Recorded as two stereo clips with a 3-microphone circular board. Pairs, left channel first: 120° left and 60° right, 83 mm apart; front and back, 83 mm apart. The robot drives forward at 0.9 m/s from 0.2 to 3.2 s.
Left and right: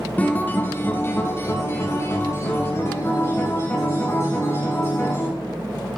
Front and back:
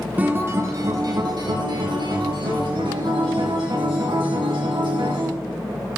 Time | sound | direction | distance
0.2 | a guitar | 150° left | 1.1 m